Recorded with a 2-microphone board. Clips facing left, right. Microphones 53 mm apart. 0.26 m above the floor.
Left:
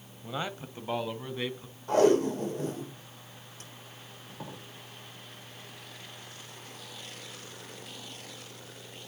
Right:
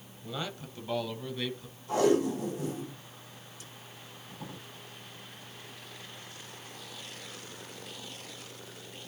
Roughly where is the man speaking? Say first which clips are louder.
Left 3 dB; left.